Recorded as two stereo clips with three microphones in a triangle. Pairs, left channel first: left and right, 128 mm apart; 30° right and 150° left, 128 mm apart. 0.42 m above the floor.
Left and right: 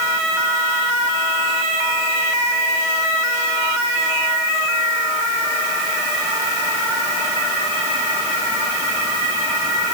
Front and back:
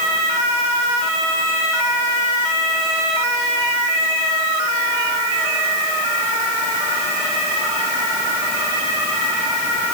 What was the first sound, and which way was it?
Only background noise.